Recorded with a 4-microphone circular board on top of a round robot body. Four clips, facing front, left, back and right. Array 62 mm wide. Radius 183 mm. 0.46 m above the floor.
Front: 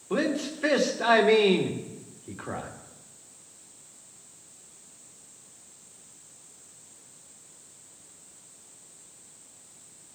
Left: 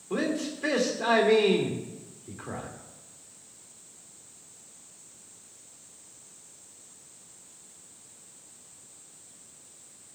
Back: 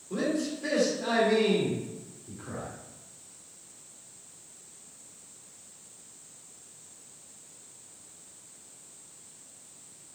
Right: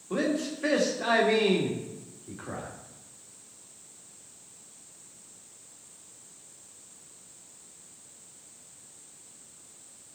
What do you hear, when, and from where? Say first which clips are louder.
0.1 s a man speaking: right 1 dB, front 2 dB; straight ahead, 2 m